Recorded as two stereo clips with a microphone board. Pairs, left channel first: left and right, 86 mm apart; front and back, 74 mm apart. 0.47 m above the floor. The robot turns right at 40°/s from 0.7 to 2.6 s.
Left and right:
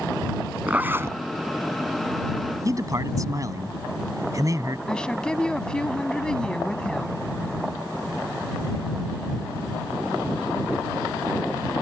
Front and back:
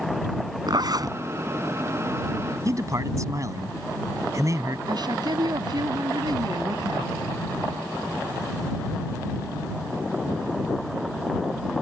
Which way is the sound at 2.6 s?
135° right.